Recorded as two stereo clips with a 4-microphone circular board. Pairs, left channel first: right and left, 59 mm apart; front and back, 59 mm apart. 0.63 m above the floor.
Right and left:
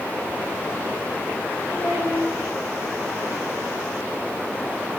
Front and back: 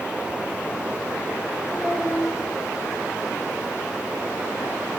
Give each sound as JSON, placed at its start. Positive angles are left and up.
{"t": 1.7, "sound": "a child speaking", "azimuth_deg": -55, "distance_m": 3.0}